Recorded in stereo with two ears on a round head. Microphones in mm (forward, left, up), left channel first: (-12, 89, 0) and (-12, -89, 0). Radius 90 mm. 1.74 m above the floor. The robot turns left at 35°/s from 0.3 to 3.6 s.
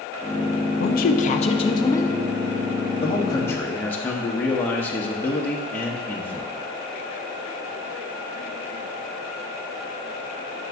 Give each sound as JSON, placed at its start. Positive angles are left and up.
{"t": 0.8, "sound": "a woman speaking", "azimuth_deg": 60, "distance_m": 0.6}
{"t": 3.0, "sound": "a man speaking", "side_deg": 30, "distance_m": 1.0}